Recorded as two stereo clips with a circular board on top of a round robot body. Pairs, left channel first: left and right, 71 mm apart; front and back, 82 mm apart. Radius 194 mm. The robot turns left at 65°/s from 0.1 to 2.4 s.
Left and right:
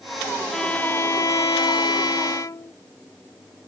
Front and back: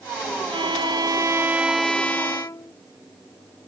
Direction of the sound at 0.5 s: 175° left.